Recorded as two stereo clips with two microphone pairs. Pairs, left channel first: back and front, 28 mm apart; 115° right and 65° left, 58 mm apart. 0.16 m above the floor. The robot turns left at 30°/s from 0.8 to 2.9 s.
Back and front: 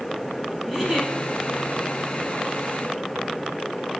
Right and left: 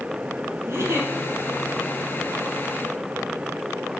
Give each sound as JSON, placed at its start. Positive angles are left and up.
{"t": 0.7, "sound": "a giggle", "azimuth_deg": 70, "distance_m": 0.8}